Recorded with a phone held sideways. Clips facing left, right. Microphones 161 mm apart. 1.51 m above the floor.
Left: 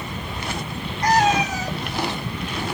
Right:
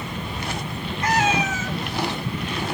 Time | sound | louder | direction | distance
1.0 | a cat meowing | left 3 dB | 35° left (ahead or behind) | 0.9 m